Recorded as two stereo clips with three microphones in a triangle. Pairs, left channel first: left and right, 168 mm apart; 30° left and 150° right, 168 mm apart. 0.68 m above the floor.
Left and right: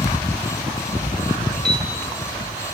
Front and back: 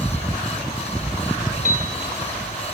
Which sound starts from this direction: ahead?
A piano, at 1.6 s.